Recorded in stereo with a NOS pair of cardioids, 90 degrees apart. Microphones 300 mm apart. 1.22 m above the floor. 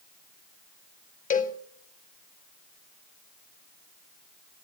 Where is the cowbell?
25° left, 0.9 m.